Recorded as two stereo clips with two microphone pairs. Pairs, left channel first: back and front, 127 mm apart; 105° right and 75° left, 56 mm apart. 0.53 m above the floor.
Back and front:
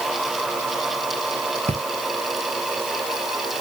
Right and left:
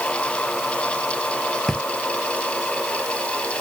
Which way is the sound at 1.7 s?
25° right.